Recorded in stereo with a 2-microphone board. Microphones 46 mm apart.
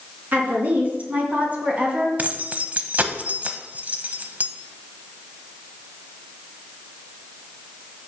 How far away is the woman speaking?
About 3 m.